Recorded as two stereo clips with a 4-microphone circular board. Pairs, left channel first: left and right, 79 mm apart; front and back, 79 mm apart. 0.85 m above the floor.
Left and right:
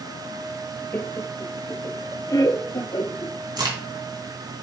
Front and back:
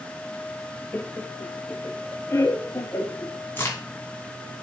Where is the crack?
65° right, 2 m.